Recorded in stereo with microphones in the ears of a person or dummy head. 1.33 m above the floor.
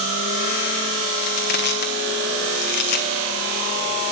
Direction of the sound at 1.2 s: 50° left (ahead or behind).